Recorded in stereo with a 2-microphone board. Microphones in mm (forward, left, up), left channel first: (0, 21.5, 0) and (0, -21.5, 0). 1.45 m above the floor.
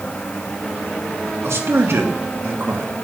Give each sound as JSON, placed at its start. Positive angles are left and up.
{"t": 1.4, "sound": "a man speaking", "side_deg": -80, "distance_m": 3.0}